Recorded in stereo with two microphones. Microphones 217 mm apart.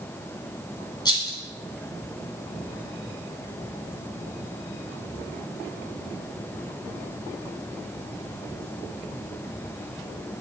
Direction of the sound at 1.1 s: 20° left (ahead or behind).